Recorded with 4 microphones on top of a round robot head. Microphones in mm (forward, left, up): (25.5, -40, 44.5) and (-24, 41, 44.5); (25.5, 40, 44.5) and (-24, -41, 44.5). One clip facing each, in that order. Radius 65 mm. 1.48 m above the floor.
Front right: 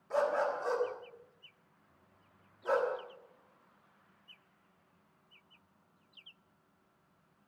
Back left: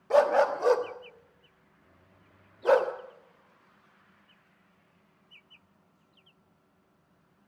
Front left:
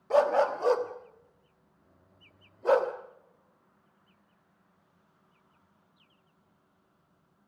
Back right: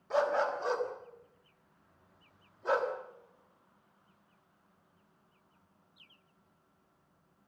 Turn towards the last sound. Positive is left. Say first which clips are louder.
# back left 9 dB, front left 6 dB
turn(degrees=100)